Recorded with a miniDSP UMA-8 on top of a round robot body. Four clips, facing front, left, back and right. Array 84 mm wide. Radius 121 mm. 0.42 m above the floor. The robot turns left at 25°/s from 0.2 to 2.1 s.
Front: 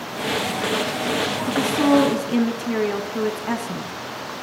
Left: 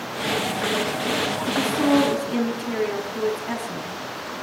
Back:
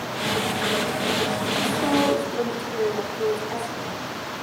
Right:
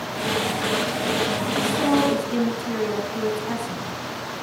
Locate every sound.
1.5 s a woman speaking: 15° left, 5.5 m; by 3.9 s straight ahead, 5.5 m